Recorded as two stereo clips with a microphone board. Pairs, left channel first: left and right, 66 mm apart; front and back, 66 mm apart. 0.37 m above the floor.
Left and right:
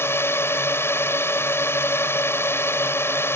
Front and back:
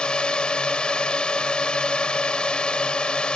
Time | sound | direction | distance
0.0 | a drone | 65° left | ?